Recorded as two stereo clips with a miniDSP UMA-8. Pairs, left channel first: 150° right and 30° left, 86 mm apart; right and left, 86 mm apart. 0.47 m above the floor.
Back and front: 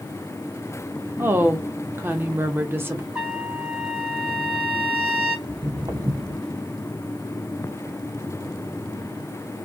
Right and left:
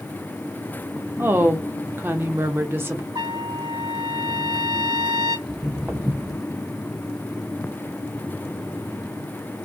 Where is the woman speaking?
60° left, 0.7 m.